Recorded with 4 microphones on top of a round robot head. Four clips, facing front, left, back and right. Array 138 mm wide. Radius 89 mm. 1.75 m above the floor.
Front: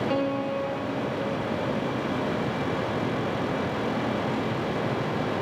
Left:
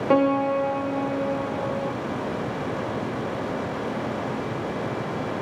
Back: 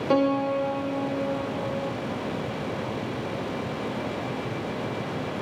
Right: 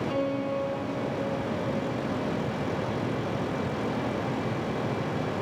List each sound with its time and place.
0.1 s a piano: 110° left, 1.1 m